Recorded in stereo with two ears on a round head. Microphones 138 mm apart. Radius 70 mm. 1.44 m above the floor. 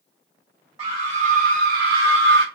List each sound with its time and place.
0.8 s a scream: 20° right (ahead or behind), 0.9 m; by 2.5 s 70° right (ahead or behind), 0.7 m